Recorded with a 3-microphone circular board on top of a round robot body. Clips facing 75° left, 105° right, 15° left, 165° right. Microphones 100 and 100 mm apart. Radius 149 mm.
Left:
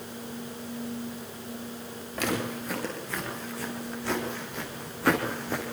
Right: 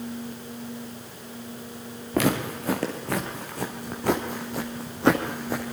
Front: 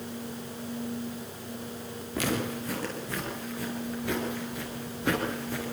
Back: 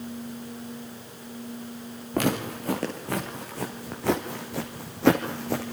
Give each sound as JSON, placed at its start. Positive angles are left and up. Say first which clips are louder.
{"t": 2.1, "sound": "footsteps", "louder": "right 6 dB, back 4 dB", "azimuth_deg": -125, "distance_m": 5.5}